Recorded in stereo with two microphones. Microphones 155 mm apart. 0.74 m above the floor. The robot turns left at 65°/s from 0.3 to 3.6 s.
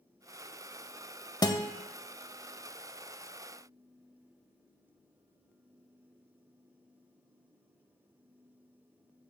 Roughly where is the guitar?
Left.